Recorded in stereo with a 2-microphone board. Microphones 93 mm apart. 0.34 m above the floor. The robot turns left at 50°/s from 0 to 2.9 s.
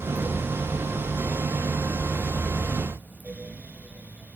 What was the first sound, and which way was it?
Only background noise.